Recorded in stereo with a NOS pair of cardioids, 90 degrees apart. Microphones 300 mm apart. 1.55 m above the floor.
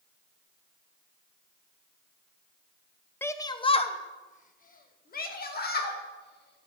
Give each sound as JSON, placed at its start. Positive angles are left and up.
{"t": 3.2, "sound": "a shout", "azimuth_deg": 5, "distance_m": 0.7}